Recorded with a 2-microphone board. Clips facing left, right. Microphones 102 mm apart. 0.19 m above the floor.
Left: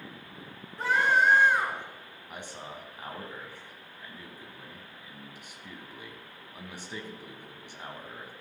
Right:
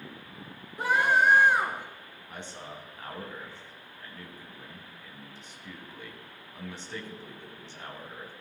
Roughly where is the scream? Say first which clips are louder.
Right 1 dB; centre.